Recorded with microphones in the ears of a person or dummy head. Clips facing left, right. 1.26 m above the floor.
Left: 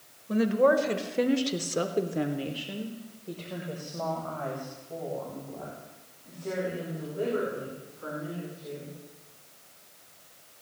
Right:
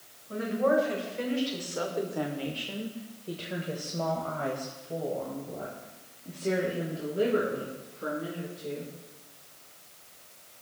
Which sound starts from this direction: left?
A woman speaking, at 0.3 s.